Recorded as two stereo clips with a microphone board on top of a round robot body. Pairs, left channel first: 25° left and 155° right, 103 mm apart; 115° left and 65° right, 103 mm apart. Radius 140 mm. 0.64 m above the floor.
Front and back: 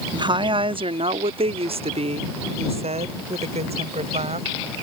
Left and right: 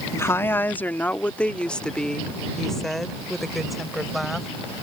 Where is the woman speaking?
170° left; by 4.8 s 155° right.